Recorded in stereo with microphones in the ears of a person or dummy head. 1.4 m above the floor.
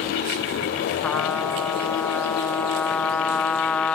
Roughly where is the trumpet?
Centre.